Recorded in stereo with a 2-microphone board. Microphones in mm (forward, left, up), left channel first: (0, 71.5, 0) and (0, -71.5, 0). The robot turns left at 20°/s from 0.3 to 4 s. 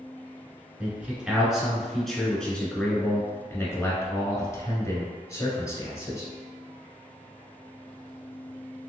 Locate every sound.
0.8 s a man speaking: 160° right, 1.2 m; by 6.3 s 135° left, 1.2 m